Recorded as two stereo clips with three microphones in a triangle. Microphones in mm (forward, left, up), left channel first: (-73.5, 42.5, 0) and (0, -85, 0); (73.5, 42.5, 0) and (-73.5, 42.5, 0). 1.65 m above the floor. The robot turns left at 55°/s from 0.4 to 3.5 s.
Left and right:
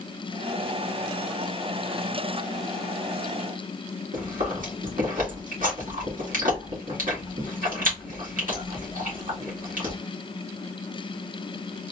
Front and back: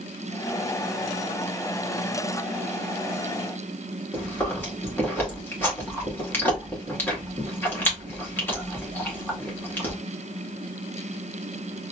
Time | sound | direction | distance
4.1 | chewing | 75° right | 1.9 m